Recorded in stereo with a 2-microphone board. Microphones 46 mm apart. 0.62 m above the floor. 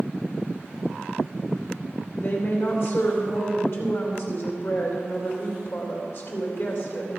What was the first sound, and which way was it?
A woman speaking, 55° left (ahead or behind).